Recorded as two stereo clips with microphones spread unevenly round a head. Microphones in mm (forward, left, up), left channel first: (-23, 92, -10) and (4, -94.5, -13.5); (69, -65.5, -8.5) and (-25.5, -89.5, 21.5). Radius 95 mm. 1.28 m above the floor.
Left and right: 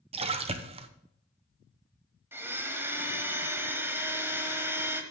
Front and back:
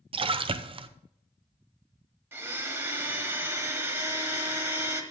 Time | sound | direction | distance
0.1 | a splash | 135° right | 0.8 m
2.3 | a blender | 155° right | 1.3 m